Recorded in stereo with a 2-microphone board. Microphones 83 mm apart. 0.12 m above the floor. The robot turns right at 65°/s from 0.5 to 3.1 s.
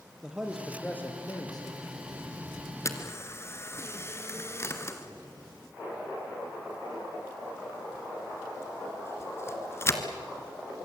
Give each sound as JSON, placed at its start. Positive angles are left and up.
{"t": 0.2, "sound": "a man speaking", "azimuth_deg": -5, "distance_m": 3.0}
{"t": 2.9, "sound": "a camera shutter", "side_deg": 35, "distance_m": 1.7}